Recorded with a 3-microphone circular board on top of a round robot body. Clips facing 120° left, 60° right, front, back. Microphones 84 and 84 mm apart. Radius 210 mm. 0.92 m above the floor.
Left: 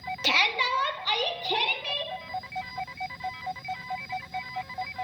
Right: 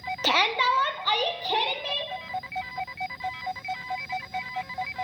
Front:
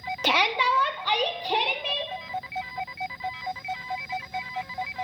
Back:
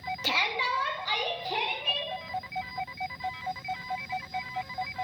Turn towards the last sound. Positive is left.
turn(degrees=-10)